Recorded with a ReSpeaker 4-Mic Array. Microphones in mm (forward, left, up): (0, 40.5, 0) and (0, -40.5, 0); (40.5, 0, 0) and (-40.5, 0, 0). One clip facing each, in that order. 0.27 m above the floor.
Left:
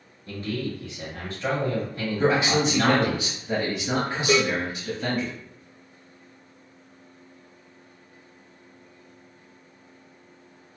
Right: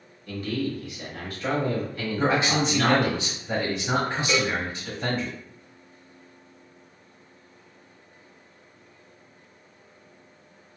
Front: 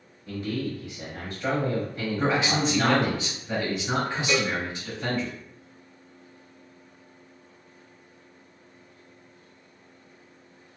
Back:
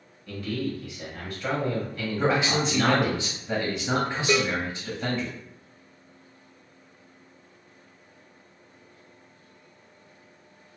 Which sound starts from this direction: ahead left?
A man speaking, at 0.3 s.